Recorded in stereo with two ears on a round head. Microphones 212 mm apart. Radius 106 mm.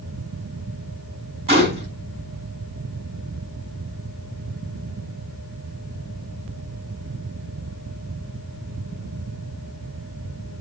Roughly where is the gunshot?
Right.